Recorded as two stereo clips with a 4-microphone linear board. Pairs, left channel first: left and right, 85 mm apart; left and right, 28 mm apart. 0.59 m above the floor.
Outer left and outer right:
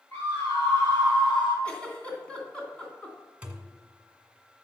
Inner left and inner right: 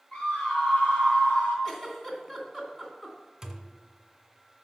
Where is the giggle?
15° left (ahead or behind), 2.5 m.